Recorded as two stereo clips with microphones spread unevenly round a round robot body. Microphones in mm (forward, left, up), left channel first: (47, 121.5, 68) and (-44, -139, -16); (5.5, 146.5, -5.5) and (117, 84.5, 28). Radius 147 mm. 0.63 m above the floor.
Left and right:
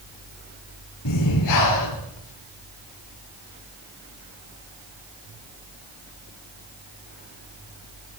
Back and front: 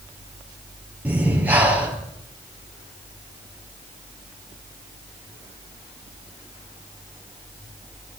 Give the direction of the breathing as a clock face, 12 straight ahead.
10 o'clock.